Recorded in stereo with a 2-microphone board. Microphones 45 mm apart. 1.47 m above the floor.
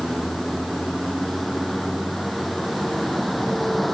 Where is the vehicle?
Centre (ahead or behind).